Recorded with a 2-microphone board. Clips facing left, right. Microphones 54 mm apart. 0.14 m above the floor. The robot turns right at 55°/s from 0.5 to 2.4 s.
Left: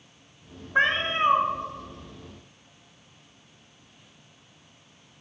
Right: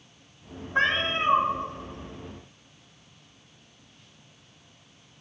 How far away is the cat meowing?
About 1.1 m.